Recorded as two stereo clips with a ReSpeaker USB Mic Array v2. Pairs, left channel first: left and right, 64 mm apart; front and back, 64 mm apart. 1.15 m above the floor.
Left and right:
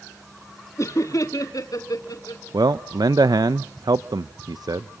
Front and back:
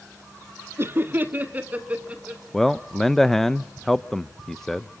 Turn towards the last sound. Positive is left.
turn(degrees=-85)